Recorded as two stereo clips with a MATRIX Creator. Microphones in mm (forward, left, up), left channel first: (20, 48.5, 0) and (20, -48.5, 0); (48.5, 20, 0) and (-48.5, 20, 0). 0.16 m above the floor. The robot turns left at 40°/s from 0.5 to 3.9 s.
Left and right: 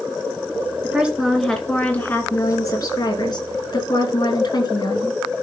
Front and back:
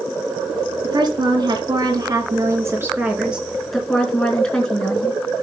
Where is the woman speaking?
160° right, 2.5 m; by 5.2 s 80° left, 2.5 m.